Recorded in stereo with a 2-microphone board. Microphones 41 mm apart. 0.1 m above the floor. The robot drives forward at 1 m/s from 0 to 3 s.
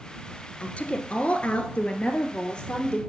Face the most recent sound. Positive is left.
turn(degrees=20)  # may be behind; listen again after turning